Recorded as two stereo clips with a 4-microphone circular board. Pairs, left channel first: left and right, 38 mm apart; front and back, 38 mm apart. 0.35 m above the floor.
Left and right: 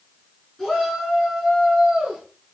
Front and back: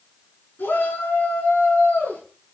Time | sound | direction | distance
0.6 | a shout | 10° left | 5 m